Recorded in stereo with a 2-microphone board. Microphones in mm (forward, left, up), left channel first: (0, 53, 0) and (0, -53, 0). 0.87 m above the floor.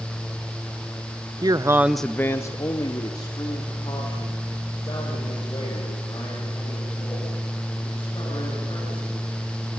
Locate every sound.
1.4 s a man speaking: 40° right (ahead or behind), 0.7 m; by 9.4 s 45° left (ahead or behind), 9 m